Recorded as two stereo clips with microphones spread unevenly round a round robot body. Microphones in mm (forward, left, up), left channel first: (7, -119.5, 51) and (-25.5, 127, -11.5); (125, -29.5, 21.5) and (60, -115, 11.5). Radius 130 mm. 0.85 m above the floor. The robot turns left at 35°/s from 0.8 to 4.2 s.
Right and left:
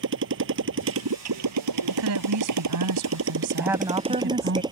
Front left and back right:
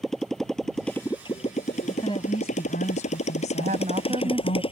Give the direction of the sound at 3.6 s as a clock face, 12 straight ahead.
6 o'clock.